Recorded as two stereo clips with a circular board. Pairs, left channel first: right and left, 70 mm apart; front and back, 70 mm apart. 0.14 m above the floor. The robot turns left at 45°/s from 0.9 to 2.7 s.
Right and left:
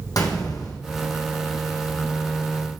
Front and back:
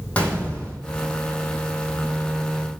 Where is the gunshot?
70° right, 2.5 m.